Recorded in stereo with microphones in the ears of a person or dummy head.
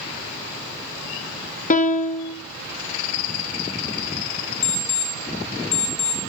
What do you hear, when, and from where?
1.7 s a piano: 40° left (ahead or behind), 0.5 m
4.6 s an alarm clock: 35° left (ahead or behind), 1.5 m